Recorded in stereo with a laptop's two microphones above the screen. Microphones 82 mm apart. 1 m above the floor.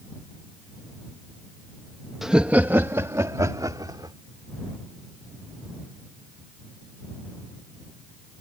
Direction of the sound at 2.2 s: 5° right (ahead or behind).